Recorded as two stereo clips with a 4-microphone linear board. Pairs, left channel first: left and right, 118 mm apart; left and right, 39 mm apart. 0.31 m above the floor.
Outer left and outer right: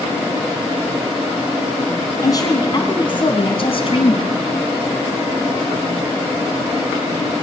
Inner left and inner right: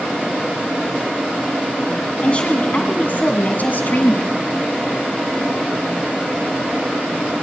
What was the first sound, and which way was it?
A woman speaking, 30° left (ahead or behind).